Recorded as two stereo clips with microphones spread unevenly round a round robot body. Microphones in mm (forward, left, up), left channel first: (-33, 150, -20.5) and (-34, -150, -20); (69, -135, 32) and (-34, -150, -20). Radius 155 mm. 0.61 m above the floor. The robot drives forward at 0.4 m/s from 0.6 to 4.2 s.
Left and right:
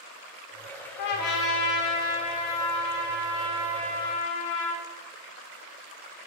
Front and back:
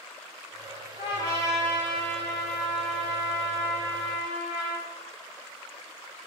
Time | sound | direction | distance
1.0 | a trumpet | 85° left | 1.4 m